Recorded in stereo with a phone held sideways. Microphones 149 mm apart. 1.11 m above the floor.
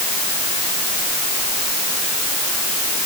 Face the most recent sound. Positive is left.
No sound to turn to.